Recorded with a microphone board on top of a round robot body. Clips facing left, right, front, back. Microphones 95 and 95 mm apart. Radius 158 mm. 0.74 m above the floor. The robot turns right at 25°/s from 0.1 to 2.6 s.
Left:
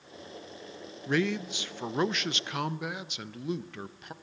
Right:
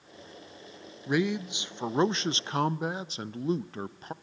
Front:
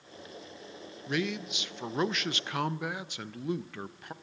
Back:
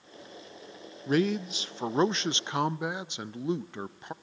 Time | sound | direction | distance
1.1 | a man speaking | 160° right | 0.6 m